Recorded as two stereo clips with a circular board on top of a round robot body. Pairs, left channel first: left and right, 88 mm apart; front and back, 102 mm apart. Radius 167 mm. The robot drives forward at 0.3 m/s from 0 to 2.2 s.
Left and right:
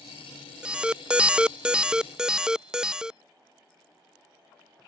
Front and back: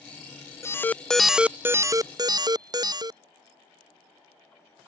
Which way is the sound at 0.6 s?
20° right.